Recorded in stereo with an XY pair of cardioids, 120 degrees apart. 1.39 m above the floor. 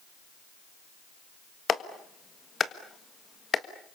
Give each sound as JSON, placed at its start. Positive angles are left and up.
{"t": 1.7, "sound": "a clap", "azimuth_deg": 35, "distance_m": 1.6}